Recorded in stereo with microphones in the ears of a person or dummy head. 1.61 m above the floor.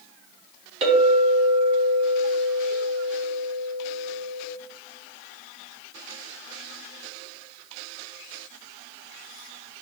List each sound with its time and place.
0.8 s a clink: 35° right (ahead or behind), 2 m